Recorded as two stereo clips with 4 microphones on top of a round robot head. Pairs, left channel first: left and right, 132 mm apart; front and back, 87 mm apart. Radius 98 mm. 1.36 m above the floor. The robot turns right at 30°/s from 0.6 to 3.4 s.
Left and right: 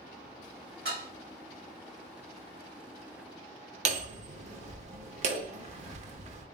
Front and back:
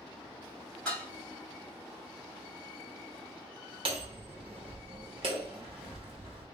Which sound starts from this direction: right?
Dishes clattering, at 0.8 s.